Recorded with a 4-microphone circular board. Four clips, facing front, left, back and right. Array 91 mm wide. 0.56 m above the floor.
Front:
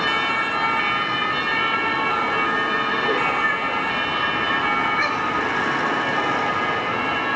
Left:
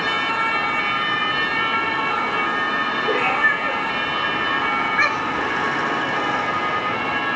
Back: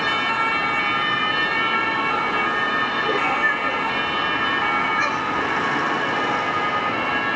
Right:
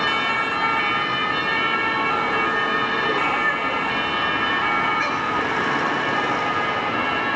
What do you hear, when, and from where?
3.1 s a cat meowing: 110° left, 7 m; by 5.5 s 95° left, 3.5 m